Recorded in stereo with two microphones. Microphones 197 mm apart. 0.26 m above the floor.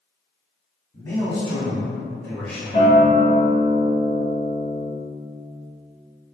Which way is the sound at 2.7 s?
25° left (ahead or behind).